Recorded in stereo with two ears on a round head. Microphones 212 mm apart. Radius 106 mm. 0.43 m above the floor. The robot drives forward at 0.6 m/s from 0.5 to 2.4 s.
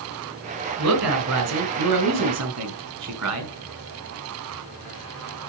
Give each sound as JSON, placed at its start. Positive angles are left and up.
{"t": 0.8, "sound": "a woman speaking", "side_deg": -70, "distance_m": 4.5}